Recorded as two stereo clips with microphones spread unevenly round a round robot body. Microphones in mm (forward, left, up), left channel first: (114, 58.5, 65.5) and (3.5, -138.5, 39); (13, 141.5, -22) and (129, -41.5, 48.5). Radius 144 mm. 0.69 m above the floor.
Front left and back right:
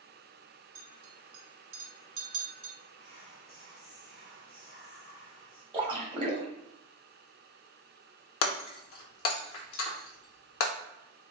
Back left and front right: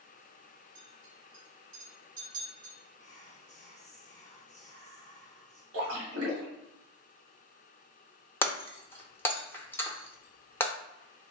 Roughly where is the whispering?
Left.